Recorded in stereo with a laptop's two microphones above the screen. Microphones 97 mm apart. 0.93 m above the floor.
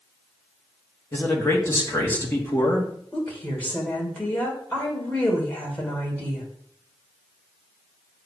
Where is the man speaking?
25° left (ahead or behind), 2.0 m.